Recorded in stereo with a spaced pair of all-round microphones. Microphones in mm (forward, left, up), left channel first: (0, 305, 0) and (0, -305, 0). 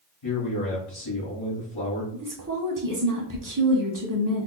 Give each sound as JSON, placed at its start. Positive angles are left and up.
{"t": 0.2, "sound": "a man speaking", "side_deg": 50, "distance_m": 1.2}
{"t": 2.1, "sound": "a woman speaking", "side_deg": -30, "distance_m": 0.8}